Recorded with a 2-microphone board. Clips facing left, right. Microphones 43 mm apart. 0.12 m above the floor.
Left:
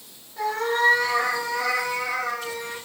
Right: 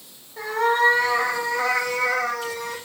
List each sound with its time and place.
0.4 s a cat meowing: 15° right (ahead or behind), 3 m; by 2.8 s 75° right (ahead or behind), 2.0 m